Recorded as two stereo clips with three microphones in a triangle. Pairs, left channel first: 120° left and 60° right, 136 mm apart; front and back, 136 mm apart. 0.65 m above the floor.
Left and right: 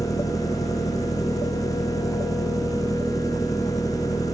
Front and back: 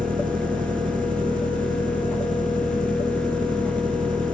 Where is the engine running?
175° right.